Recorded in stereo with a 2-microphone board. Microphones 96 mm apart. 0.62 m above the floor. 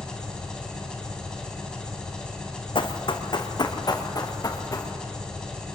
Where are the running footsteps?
60° left (ahead or behind), 1.8 m; by 4.9 s 35° left (ahead or behind), 3 m.